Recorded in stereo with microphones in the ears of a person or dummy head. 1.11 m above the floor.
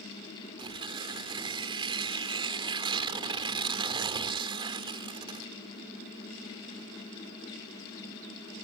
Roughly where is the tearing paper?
Right.